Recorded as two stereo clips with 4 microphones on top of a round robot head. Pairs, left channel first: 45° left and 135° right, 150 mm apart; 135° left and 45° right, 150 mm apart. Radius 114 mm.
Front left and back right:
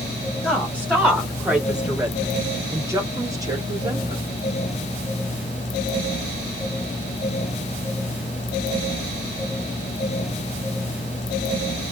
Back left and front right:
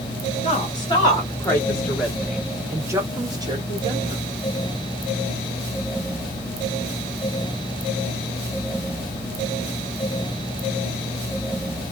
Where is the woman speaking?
120° left, 1.6 m; by 4.2 s 80° right, 1.9 m.